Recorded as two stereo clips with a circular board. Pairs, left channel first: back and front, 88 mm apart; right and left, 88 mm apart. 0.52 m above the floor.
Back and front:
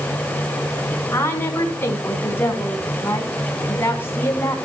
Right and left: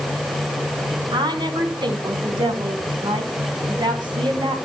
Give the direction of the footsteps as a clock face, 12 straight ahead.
I don't hear footsteps.